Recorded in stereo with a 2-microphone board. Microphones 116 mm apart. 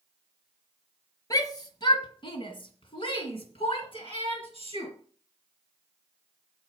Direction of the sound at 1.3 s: 35° left (ahead or behind).